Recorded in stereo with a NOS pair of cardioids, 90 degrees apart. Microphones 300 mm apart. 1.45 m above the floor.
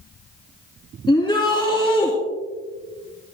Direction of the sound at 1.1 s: 15° left.